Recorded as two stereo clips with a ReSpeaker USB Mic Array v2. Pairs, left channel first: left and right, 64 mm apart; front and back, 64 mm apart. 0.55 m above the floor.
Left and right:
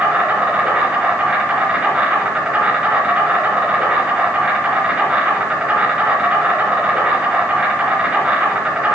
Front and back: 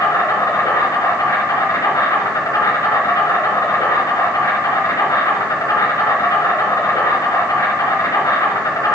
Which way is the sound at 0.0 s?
15° right.